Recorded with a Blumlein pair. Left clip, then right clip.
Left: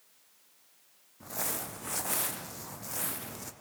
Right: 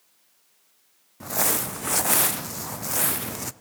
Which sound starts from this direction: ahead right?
Crumpling, at 1.2 s.